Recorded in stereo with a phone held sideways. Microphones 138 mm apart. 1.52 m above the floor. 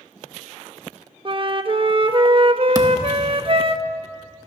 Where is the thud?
25° right (ahead or behind), 1.1 m.